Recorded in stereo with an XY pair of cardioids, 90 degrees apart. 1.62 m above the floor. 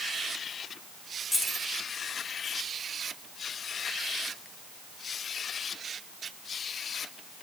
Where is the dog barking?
No dog barking in this recording.